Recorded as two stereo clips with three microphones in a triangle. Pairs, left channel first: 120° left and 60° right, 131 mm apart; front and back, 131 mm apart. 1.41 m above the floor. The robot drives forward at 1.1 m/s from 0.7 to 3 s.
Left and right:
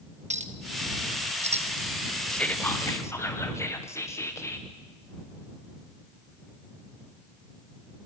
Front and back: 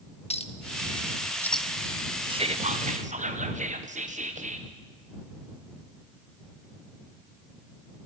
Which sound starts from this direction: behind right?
Whispering, at 2.3 s.